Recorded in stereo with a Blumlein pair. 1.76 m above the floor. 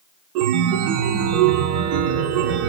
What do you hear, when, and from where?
0.3 s a chime: 40° right, 0.8 m